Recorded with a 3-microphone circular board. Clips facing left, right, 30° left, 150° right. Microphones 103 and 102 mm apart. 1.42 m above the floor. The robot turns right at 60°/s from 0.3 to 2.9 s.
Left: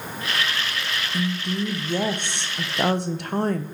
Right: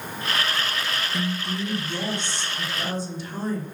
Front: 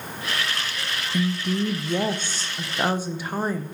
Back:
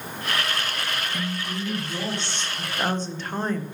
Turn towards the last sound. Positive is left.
turn(degrees=110)